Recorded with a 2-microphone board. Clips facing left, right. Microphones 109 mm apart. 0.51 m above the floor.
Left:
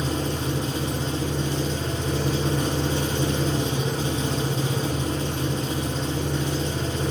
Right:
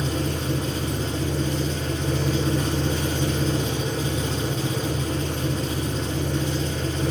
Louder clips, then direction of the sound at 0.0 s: Even; 30° left (ahead or behind).